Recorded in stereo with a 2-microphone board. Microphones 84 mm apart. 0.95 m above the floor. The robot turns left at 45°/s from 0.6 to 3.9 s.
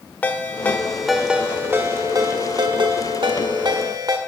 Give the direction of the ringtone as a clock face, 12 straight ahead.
11 o'clock.